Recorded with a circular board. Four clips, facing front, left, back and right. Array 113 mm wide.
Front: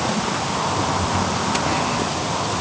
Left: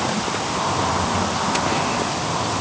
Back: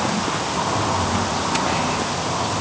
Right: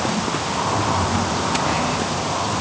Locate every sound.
Only background noise.